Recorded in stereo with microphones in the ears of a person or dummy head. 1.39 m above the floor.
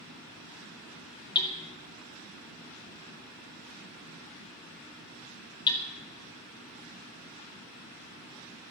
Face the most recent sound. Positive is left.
turn(degrees=25)  # may be behind; listen again after turning